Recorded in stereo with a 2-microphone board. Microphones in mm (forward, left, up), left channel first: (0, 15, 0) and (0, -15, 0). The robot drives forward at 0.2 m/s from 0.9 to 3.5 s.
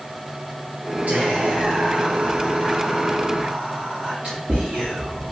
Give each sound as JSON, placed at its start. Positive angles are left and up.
{"t": 1.1, "sound": "whispering", "side_deg": -70, "distance_m": 1.0}